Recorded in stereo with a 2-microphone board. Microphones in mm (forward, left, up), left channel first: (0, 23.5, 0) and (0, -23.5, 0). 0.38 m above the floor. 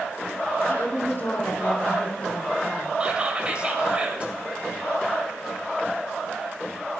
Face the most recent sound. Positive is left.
turn(degrees=-25)  # may be behind; listen again after turning